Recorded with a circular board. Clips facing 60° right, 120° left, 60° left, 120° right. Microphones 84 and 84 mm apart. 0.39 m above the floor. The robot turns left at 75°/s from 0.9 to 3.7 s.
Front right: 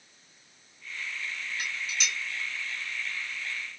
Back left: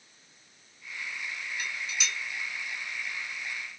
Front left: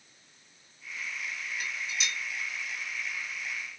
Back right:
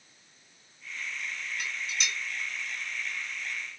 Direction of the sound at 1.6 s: 125° right.